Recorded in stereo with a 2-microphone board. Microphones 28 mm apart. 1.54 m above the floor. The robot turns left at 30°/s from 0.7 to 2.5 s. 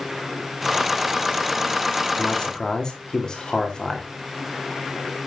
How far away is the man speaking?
About 3.5 m.